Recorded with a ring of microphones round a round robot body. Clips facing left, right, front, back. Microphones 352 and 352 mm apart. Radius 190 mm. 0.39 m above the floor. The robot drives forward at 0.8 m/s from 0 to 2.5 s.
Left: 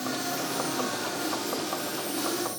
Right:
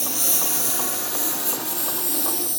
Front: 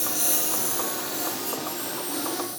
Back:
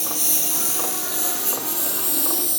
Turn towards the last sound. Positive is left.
turn(degrees=-150)